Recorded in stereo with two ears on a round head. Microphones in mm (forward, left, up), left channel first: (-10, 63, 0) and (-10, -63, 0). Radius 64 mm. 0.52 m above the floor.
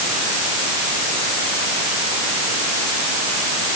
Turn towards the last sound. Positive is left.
No sound to turn to.